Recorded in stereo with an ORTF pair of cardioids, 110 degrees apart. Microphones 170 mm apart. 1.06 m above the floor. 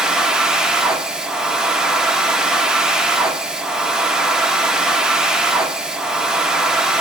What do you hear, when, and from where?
0.0 s a machine running: 5° right, 1.0 m